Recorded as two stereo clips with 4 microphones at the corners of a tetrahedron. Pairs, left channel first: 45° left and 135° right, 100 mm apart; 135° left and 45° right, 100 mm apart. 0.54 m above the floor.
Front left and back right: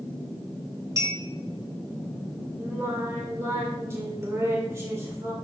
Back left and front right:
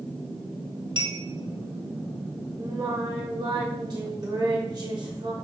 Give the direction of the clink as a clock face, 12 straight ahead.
3 o'clock.